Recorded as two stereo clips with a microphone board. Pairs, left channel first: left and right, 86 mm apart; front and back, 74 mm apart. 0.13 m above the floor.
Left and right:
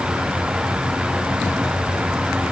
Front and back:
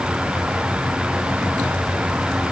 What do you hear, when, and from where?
Only background noise.